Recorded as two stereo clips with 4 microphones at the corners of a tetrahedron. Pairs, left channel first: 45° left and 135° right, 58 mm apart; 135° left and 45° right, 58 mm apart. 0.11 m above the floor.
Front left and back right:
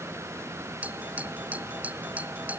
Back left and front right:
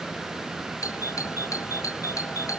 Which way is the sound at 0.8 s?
160° left.